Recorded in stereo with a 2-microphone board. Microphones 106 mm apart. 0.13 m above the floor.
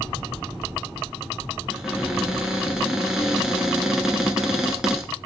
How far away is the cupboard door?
About 0.8 m.